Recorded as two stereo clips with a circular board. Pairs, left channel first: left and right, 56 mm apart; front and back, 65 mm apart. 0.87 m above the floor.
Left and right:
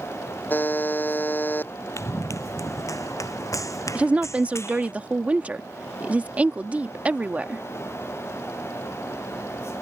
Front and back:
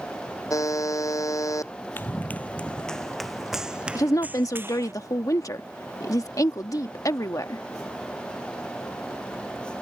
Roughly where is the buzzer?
Ahead left.